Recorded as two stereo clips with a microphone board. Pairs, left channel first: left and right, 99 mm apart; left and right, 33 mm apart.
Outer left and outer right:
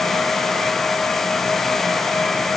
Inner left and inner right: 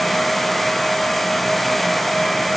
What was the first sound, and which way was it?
Only background noise.